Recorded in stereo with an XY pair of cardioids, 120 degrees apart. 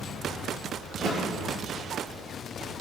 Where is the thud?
55° right, 7 m.